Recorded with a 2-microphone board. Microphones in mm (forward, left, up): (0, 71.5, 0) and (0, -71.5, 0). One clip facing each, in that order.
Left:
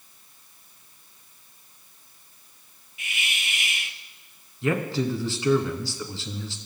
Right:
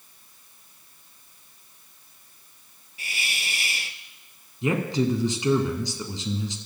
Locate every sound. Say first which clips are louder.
3.0 s a hiss: even; 35° right (ahead or behind), 0.9 m
4.6 s a man speaking: right 1 dB; 20° right (ahead or behind), 2 m